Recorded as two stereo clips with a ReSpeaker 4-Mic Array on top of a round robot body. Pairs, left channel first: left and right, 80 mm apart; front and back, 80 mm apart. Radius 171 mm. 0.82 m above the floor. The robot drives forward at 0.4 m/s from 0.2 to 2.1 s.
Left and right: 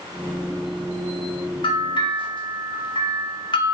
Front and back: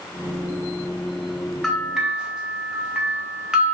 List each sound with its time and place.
1.6 s a bell: 85° left, 0.8 m; by 3.8 s 100° left, 0.8 m